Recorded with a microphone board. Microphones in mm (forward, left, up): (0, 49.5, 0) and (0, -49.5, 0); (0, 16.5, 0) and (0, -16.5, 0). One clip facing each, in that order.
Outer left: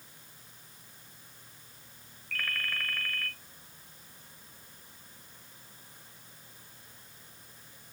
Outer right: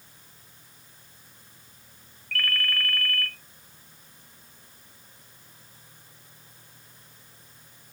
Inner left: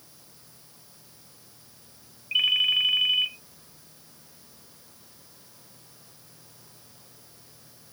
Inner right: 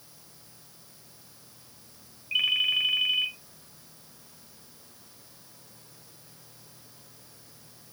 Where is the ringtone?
5° left (ahead or behind), 1.0 m.